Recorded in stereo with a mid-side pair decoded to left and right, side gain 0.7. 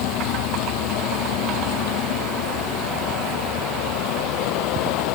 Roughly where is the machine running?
Ahead left.